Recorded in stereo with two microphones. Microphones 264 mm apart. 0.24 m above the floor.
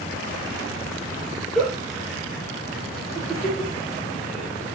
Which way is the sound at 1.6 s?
Centre (ahead or behind).